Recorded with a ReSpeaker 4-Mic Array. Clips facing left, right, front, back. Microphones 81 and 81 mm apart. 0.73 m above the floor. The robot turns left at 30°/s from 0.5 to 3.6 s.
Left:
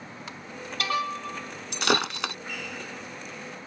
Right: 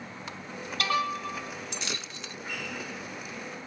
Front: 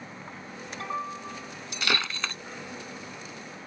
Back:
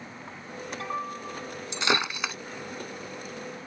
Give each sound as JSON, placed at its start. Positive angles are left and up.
{"t": 1.7, "sound": "breaking glass", "azimuth_deg": 120}